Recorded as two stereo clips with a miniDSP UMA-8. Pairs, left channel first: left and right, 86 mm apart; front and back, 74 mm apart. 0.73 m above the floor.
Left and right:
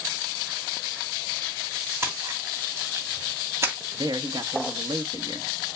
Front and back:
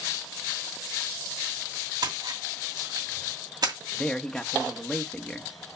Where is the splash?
150° right, 2 m.